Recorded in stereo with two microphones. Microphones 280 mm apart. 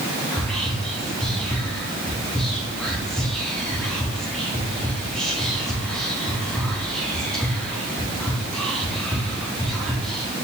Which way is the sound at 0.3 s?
Centre (ahead or behind).